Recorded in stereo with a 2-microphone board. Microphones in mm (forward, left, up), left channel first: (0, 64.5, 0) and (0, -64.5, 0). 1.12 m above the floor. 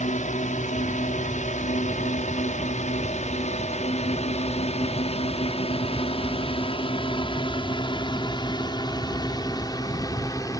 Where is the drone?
65° left (ahead or behind); by 10.6 s 25° left (ahead or behind).